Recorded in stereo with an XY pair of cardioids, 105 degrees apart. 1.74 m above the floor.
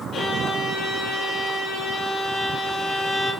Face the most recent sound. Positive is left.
turn(degrees=60)